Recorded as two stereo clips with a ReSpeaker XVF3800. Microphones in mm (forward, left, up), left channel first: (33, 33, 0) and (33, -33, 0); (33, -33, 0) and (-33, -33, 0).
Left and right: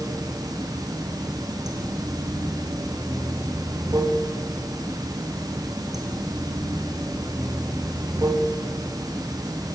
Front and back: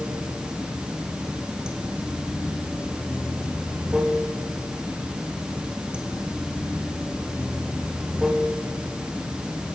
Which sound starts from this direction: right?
Running water, at 0.0 s.